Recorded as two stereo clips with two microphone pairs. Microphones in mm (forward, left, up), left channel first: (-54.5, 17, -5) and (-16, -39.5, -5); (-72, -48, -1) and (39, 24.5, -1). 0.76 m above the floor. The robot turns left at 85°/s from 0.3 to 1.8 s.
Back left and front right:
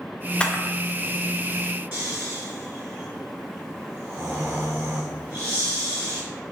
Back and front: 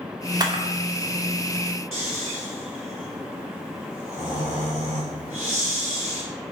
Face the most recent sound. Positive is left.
turn(degrees=0)